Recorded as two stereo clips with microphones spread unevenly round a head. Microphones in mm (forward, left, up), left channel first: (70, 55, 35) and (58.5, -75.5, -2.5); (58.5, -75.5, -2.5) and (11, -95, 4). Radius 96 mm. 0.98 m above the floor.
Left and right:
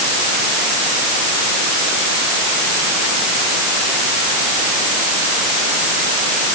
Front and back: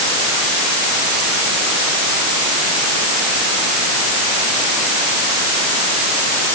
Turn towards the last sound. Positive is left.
No sound to turn to.